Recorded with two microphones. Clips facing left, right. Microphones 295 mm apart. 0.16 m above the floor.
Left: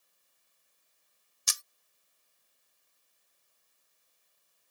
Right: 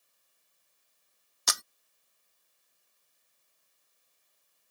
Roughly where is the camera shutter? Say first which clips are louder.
Right 13 dB; right.